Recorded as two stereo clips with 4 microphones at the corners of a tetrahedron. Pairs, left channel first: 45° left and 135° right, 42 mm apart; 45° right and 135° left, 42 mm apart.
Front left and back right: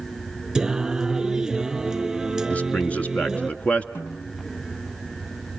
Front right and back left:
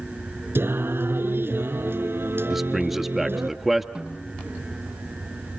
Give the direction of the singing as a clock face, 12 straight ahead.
7 o'clock.